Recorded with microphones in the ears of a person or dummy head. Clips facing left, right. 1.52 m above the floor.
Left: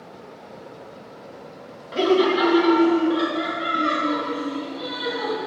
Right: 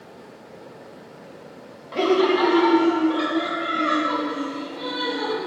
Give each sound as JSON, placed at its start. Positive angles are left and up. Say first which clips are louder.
{"t": 1.9, "sound": "laughter", "louder": "even", "side_deg": 10, "distance_m": 0.8}